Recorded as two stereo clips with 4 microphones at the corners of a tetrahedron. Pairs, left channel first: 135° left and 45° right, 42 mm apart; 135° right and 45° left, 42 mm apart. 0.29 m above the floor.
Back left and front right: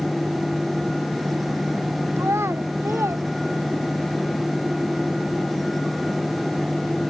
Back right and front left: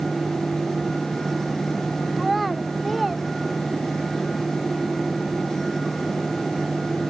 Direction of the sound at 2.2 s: 45° right.